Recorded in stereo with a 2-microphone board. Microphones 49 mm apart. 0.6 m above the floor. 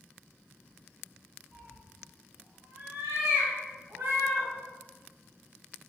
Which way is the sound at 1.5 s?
65° right (ahead or behind).